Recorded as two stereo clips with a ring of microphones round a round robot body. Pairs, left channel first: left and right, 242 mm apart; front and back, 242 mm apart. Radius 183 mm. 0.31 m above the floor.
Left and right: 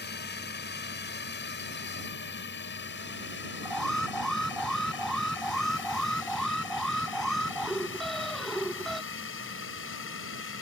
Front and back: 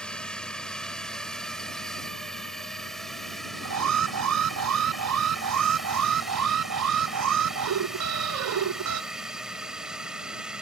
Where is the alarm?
Straight behind.